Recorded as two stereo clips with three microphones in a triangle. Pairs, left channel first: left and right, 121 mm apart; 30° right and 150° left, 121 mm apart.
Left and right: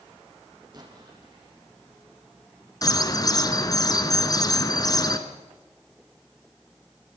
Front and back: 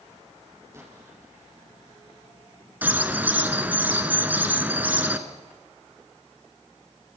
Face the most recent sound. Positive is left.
turn(degrees=90)